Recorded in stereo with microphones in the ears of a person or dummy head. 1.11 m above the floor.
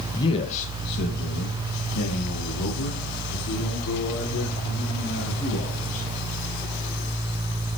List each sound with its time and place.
0.1 s a man speaking: 20° left (ahead or behind), 0.6 m; by 6.0 s 90° left, 4 m